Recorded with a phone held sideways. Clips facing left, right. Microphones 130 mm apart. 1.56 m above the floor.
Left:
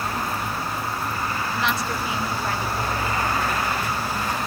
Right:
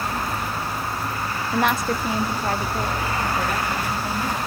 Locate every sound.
1.5 s a woman speaking: 55° right (ahead or behind), 1.0 m; by 4.4 s 35° right (ahead or behind), 4 m